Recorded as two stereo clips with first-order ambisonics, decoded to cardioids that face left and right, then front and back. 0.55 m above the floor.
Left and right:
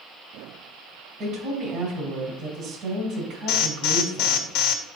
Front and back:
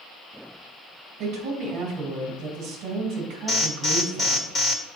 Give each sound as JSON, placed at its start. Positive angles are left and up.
{"t": 1.2, "sound": "a woman speaking", "azimuth_deg": -145, "distance_m": 3.0}
{"t": 3.5, "sound": "an alarm", "azimuth_deg": 75, "distance_m": 1.5}